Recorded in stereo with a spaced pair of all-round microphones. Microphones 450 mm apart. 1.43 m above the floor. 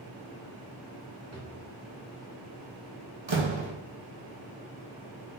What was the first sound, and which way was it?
A drawer, 35° right (ahead or behind).